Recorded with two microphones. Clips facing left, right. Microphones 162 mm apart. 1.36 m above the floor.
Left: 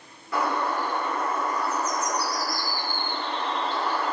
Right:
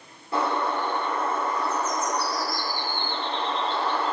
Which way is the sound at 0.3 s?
30° right (ahead or behind).